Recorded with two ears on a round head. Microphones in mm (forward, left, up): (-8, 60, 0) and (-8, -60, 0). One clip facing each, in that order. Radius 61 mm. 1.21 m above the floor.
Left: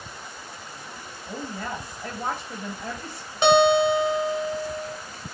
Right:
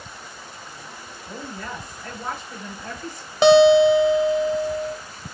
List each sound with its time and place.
1.3 s a woman speaking: 40° left (ahead or behind), 2 m
3.4 s a guitar: 65° right (ahead or behind), 0.8 m